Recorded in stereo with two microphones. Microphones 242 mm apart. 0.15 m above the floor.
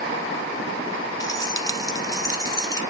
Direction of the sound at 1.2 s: 15° left (ahead or behind).